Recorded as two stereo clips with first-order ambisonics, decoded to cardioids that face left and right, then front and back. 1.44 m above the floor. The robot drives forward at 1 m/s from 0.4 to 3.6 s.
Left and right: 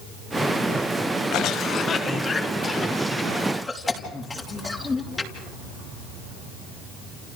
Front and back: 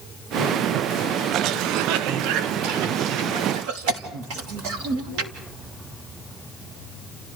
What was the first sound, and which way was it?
A cough, 130° left.